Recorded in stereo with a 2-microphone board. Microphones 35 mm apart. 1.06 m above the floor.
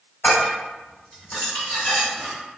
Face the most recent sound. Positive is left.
turn(degrees=60)  # may be behind; listen again after turning